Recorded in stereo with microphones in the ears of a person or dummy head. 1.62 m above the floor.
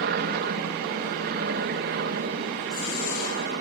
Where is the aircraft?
60° right (ahead or behind).